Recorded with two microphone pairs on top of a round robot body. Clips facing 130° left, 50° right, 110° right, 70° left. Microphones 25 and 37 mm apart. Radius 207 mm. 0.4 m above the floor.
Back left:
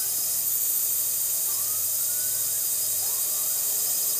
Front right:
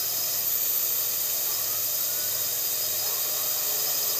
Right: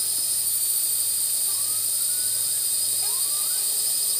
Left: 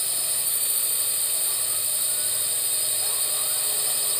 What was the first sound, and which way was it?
A drone, 10° left.